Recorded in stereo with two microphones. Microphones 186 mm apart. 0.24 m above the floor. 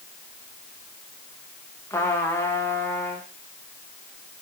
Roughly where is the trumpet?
Centre.